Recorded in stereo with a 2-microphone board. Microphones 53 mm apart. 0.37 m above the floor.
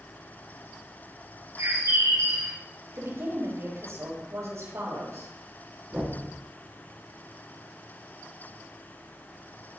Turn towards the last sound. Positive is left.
turn(degrees=-35)  # may be behind; listen again after turning